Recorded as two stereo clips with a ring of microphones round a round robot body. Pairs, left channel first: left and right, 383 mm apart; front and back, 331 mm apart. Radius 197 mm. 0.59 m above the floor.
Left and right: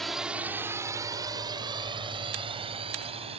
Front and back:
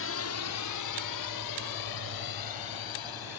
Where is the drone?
Straight ahead; by 3.4 s 15° right.